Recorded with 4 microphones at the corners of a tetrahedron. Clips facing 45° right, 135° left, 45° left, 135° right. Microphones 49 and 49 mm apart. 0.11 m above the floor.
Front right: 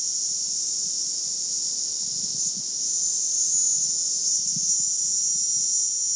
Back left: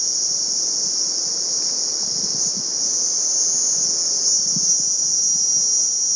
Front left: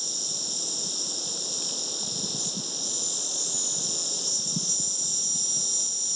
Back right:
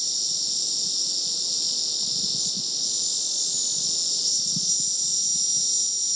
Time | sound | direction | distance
0.0 | an insect | 105° left | ?